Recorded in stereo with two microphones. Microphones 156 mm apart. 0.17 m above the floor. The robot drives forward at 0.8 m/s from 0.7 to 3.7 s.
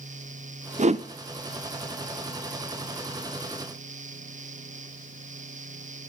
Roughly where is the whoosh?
Right.